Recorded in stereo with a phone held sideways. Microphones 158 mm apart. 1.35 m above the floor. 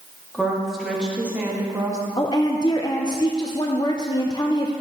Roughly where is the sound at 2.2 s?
Left.